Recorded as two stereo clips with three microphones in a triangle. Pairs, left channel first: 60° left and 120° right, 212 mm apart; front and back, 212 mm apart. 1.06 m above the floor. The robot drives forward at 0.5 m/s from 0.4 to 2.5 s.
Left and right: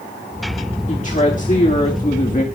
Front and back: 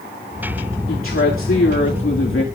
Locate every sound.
0.9 s a woman speaking: 5° left, 2.5 m; by 2.4 s 10° left, 1.8 m